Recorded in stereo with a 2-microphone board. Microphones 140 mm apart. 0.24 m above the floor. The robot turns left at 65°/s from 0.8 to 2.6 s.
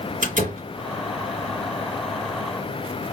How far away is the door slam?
About 1.9 m.